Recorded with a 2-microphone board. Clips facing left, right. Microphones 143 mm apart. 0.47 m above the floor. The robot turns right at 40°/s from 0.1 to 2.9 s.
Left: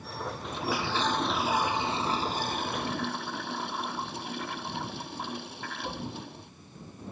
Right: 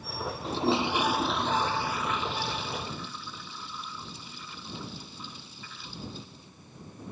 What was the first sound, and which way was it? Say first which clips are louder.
A toilet flushing: right 6 dB; 35° right.